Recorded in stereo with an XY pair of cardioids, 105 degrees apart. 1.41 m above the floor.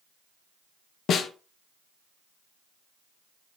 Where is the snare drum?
65° left, 0.5 m.